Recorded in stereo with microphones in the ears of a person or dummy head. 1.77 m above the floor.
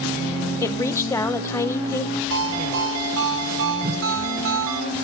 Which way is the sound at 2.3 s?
70° right (ahead or behind).